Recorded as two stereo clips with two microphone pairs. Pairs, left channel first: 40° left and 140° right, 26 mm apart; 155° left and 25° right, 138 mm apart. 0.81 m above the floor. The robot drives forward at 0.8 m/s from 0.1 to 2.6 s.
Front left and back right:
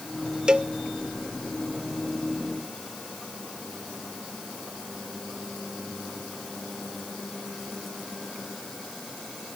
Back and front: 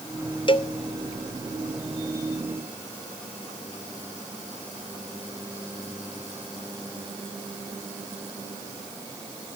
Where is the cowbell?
175° right, 0.8 m.